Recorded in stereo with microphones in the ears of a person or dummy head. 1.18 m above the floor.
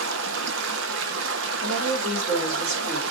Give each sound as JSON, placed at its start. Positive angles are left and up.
{"t": 0.0, "sound": "running water", "side_deg": -75, "distance_m": 1.4}
{"t": 1.6, "sound": "a woman speaking", "side_deg": -40, "distance_m": 4.0}